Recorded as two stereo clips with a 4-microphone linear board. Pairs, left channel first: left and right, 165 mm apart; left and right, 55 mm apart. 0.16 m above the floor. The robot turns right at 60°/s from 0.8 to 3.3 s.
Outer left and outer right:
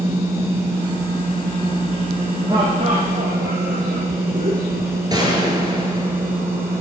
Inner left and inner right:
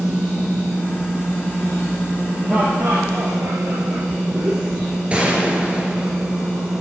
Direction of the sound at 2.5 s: 155° right.